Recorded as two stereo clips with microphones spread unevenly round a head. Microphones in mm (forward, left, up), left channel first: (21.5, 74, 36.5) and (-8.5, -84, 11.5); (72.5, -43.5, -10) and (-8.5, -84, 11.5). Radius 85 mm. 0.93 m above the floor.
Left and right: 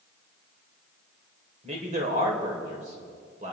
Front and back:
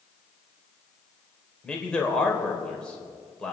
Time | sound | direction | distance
1.6 | a man speaking | 55° right | 3.5 m